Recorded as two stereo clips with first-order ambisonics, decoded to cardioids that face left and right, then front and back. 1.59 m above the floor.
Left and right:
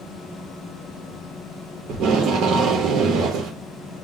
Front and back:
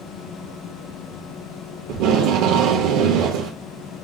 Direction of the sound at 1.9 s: 150° right.